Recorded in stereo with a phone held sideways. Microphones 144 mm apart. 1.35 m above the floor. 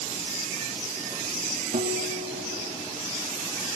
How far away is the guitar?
About 3.5 m.